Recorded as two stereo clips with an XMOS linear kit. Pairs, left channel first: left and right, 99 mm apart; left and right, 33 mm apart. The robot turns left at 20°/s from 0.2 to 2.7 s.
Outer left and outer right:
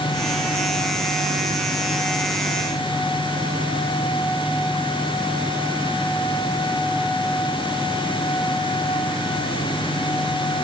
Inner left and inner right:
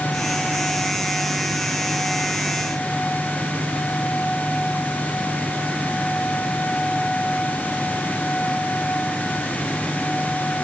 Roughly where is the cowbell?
I don't hear a cowbell.